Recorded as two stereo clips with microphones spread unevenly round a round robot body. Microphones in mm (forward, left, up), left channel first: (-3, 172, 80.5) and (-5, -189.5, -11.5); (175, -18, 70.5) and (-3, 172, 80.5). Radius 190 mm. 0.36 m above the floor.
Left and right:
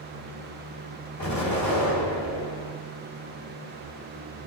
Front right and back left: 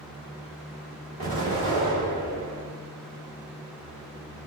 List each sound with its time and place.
1.2 s an explosion: 130° left, 1.9 m